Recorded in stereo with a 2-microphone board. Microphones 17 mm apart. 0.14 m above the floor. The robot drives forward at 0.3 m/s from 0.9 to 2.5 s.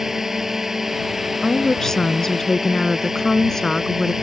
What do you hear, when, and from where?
0.0 s a drone: 25° right (ahead or behind)
1.4 s a woman speaking: 25° left (ahead or behind); by 4.1 s 30° left (ahead or behind)